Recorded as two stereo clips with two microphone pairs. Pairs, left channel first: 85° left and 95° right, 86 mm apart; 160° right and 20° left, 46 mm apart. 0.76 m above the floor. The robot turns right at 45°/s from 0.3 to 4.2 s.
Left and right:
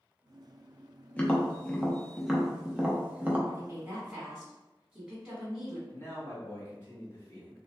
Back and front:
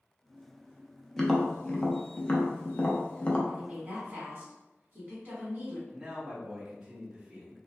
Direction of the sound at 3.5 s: 45° right.